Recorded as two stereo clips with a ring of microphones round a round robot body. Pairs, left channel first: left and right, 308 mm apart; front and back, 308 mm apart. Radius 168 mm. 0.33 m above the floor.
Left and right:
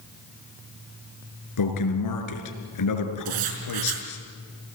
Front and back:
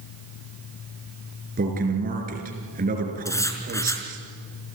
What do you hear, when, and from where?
1.6 s a man speaking: 115° left, 4.5 m
3.2 s writing: 80° right, 4.5 m